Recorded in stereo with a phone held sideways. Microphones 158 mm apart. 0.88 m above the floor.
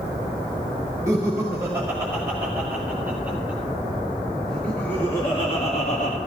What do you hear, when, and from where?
1.1 s laughter: 20° right (ahead or behind), 5.5 m; by 6.2 s 55° left (ahead or behind), 1.4 m